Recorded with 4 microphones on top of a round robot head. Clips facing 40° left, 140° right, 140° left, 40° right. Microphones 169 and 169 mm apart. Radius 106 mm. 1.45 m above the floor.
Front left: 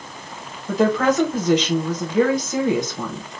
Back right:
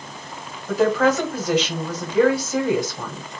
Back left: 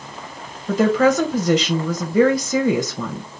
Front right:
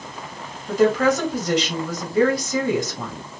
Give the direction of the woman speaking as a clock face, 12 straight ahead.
8 o'clock.